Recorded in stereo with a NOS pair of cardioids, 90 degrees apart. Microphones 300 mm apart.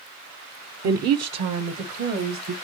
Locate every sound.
0.8 s a woman speaking: 55° right, 0.7 m; by 2.5 s 60° right, 1.6 m